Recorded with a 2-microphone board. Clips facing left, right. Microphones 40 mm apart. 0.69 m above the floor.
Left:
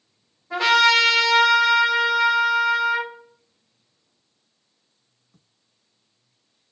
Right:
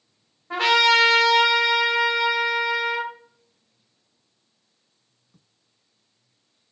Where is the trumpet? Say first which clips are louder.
Left 1 dB; 60° right (ahead or behind), 1.6 m.